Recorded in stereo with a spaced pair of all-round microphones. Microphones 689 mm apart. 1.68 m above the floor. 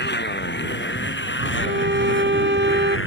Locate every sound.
0.0 s a motorcycle: 15° left (ahead or behind)
1.6 s a violin: 20° right (ahead or behind)